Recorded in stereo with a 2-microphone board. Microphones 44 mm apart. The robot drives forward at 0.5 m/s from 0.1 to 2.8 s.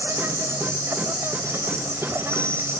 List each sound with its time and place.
0.0 s an insect: 75° right (ahead or behind); by 2.8 s 70° right (ahead or behind)